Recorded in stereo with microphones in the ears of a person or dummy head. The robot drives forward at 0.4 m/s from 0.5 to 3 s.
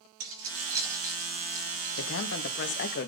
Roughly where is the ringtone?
I don't hear a ringtone.